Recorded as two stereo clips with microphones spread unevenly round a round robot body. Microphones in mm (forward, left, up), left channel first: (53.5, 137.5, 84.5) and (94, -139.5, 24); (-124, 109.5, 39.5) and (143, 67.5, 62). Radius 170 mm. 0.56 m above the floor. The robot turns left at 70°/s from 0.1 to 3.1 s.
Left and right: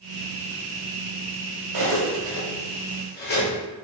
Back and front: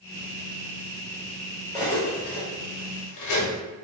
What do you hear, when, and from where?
1.7 s cutlery clinking: 105° right, 1.1 m; by 3.5 s 160° left, 1.1 m